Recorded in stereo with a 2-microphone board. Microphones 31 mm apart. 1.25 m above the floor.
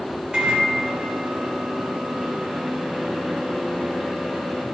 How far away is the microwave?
About 3.5 m.